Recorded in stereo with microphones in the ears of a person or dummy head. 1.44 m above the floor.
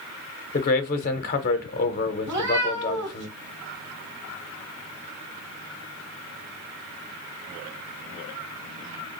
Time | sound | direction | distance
0.5 | a man speaking | 55° left (ahead or behind) | 0.7 m
2.3 | a cat meowing | 20° right (ahead or behind) | 1.4 m